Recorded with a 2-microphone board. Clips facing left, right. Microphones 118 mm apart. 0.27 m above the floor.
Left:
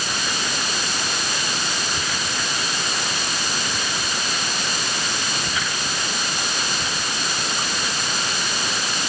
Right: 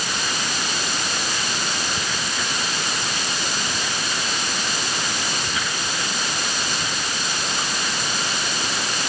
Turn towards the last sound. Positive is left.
No sound to turn to.